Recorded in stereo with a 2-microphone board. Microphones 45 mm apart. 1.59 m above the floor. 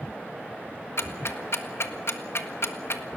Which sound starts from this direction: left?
Ticking, at 1.0 s.